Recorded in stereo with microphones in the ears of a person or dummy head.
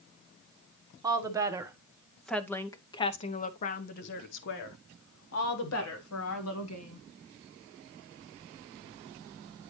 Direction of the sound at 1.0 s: 25° right (ahead or behind).